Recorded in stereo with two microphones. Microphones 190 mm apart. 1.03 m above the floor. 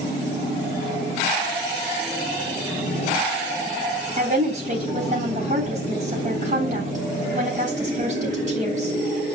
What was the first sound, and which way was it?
A woman speaking, 45° right (ahead or behind).